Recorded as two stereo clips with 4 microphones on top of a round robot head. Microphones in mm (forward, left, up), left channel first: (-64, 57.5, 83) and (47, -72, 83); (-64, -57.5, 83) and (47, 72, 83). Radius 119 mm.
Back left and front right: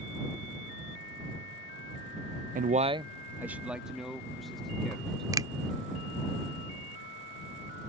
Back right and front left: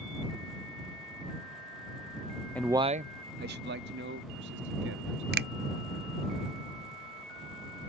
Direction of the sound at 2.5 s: 55° right.